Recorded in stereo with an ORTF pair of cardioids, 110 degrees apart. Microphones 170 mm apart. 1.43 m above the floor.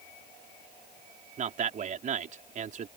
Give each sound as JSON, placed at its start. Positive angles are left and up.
{"t": 1.4, "sound": "a man speaking", "azimuth_deg": -45}